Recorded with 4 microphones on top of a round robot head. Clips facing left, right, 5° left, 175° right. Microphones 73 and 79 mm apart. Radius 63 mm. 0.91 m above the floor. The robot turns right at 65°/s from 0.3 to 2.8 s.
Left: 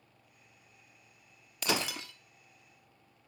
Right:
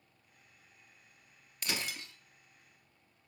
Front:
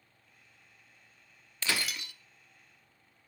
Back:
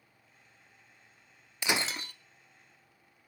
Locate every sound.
1.6 s breaking glass: 110° left, 0.6 m; by 2.1 s 145° left, 0.6 m